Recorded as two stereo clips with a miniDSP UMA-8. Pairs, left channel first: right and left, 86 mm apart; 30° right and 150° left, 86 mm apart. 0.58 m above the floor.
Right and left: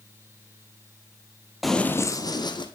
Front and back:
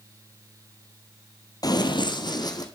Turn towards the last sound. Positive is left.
turn(degrees=-70)